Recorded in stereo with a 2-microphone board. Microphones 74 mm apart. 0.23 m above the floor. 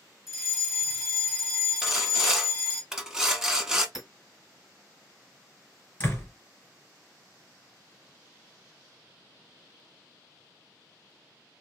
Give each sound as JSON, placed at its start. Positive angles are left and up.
{"t": 0.3, "sound": "a fire alarm", "side_deg": -5, "distance_m": 2.0}
{"t": 1.8, "sound": "sawing", "side_deg": -10, "distance_m": 0.8}
{"t": 4.0, "sound": "hammering", "side_deg": -5, "distance_m": 1.7}
{"t": 6.0, "sound": "a door slam", "side_deg": 25, "distance_m": 2.5}